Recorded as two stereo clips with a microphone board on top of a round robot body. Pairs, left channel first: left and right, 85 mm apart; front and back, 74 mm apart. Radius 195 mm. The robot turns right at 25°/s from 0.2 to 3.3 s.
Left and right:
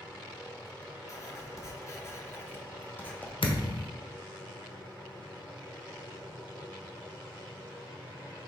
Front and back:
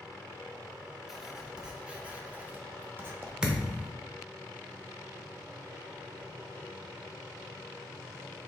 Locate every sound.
1.1 s writing: 95° left, 1.5 m; by 3.3 s 150° left, 1.5 m
3.4 s a thud: 100° left, 1.1 m